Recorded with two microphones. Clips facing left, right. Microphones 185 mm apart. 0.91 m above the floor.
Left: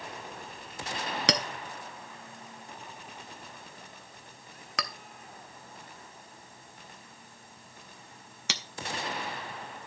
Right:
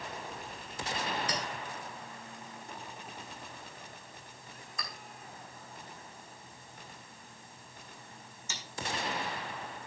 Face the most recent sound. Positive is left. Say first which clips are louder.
# left 6 dB
turn(degrees=80)